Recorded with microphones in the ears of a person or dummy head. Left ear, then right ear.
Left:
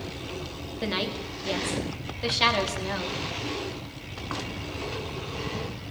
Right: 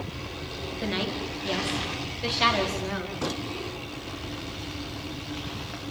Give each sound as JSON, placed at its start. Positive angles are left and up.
{"t": 0.8, "sound": "a woman speaking", "side_deg": 10, "distance_m": 5.0}